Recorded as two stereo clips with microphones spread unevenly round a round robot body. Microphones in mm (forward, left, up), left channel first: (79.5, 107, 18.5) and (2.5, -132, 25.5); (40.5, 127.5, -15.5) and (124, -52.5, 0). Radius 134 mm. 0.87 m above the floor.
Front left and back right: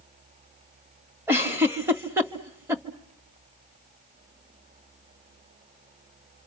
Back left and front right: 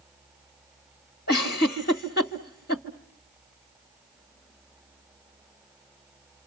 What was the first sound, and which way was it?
A giggle, 170° left.